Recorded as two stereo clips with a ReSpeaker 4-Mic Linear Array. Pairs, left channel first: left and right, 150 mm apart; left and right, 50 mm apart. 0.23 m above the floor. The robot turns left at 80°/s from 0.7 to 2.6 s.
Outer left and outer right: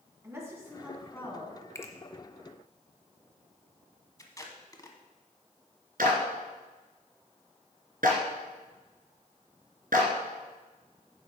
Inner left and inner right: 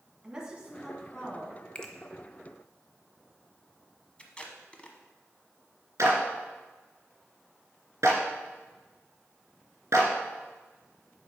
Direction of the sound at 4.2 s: 25° left (ahead or behind).